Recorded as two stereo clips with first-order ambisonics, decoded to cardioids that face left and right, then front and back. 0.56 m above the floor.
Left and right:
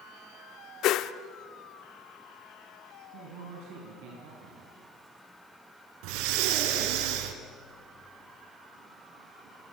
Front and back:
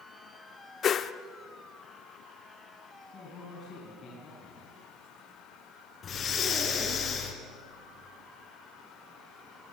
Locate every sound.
0.8 s a whoosh: 55° left, 0.7 m
3.1 s a man speaking: 65° right, 4.5 m
6.0 s breathing: 65° right, 2 m